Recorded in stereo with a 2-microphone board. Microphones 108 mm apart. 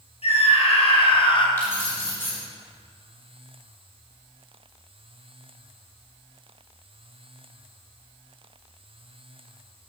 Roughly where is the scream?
Left.